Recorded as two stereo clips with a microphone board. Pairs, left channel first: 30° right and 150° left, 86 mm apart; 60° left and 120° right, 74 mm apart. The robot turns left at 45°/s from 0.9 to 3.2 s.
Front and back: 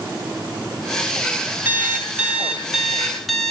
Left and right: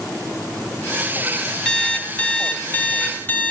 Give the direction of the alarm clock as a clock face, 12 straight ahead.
8 o'clock.